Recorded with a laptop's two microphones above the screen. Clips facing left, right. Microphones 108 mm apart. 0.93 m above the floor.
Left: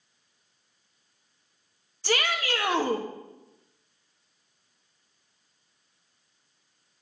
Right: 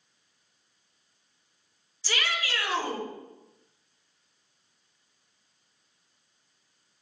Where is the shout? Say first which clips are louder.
Left 5 dB; 60° left (ahead or behind), 1.6 m.